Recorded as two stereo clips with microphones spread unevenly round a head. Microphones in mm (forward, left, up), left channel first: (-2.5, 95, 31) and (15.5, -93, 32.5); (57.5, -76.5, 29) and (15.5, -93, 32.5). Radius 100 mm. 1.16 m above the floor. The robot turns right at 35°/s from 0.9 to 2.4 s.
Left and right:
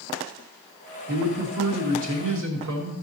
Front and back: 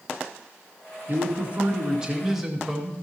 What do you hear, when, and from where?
1.1 s a man speaking: 115° right, 2 m; by 3.0 s 70° right, 2 m